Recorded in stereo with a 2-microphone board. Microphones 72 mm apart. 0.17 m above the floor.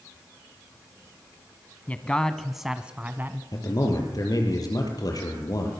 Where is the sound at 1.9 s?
20° left (ahead or behind), 1.2 m; by 3.4 s 30° right (ahead or behind), 1.4 m.